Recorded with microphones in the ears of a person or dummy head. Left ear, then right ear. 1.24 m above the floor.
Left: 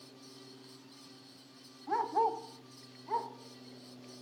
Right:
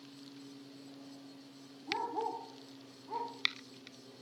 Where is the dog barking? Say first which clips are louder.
Left 6 dB; 50° left (ahead or behind), 1.5 m; by 3.3 s 75° left (ahead or behind), 2.5 m.